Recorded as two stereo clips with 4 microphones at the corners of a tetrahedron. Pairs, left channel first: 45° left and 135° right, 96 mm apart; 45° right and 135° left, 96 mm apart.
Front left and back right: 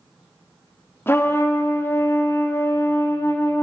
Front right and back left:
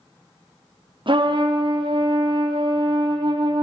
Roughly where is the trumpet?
Left.